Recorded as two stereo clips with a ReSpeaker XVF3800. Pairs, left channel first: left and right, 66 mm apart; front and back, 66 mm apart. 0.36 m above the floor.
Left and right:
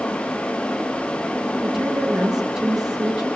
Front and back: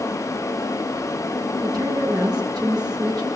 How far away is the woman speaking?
About 8.5 m.